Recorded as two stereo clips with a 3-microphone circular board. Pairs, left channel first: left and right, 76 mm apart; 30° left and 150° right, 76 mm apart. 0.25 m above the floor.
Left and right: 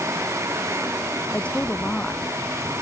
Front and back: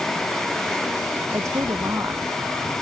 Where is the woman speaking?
165° left.